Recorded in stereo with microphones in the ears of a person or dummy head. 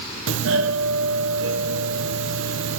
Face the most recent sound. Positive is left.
turn(degrees=-70)  # may be behind; listen again after turning